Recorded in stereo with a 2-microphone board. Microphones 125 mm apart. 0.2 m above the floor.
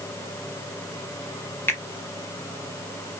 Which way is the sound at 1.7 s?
20° left (ahead or behind).